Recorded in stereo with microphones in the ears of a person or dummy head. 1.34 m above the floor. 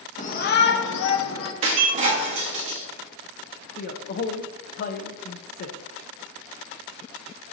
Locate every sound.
0.2 s a shout: 35° left (ahead or behind), 0.8 m; by 1.5 s 70° left (ahead or behind), 1.4 m
1.6 s breaking glass: 35° right (ahead or behind), 0.8 m
3.8 s a man speaking: 50° left (ahead or behind), 0.6 m